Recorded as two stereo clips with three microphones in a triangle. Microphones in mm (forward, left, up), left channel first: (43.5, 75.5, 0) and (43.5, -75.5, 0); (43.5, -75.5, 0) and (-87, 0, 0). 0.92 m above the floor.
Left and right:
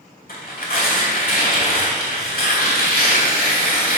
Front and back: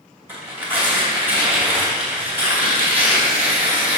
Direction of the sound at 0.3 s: 75° left.